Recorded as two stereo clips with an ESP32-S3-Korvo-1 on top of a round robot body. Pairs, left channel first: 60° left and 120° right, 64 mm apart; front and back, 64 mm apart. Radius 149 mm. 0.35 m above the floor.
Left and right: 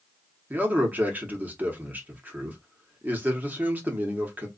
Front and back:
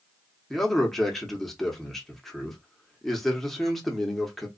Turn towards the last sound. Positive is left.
turn(degrees=-85)